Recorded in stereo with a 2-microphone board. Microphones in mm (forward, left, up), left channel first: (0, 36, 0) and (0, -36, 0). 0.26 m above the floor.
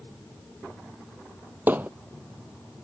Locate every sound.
1.7 s hammering: 25° right (ahead or behind)